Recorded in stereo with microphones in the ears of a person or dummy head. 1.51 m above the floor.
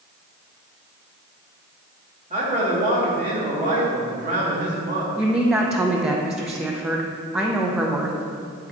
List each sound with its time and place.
2.3 s a man speaking: 35° right (ahead or behind), 2 m
5.2 s a woman speaking: 5° right (ahead or behind), 0.8 m